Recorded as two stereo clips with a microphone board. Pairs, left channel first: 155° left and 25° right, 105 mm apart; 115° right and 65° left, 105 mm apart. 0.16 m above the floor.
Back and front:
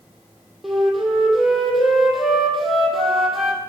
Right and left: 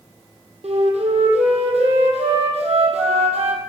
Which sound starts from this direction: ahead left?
A flute, at 0.6 s.